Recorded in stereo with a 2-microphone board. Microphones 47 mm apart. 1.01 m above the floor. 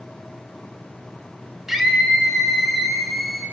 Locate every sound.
1.7 s a scream: 10° right (ahead or behind), 5.5 m; by 3.4 s centre (ahead or behind), 6.5 m